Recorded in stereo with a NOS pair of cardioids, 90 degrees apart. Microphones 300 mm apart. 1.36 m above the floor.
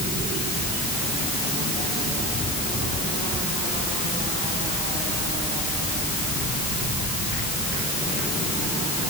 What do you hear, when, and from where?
Only background noise.